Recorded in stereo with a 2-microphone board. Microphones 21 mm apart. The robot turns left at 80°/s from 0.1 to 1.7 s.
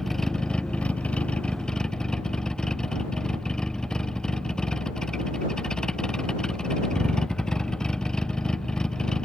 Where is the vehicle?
165° left; by 9.2 s 40° left.